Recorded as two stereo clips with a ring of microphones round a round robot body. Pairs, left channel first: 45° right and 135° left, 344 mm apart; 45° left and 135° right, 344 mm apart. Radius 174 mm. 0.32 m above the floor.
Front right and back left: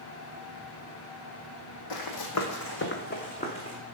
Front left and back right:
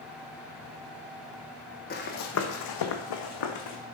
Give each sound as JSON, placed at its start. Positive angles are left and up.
{"t": 1.9, "sound": "running footsteps", "azimuth_deg": -20, "distance_m": 1.2}